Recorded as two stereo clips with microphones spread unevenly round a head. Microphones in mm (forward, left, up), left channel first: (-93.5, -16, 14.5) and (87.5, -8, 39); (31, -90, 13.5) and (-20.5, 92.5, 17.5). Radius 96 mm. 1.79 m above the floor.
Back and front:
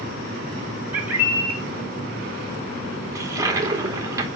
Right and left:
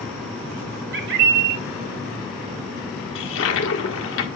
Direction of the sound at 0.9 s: 80° left.